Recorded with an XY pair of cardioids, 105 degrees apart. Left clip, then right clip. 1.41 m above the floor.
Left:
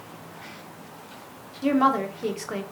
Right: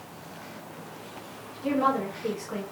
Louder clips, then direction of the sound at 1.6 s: Left 4 dB; 65° left.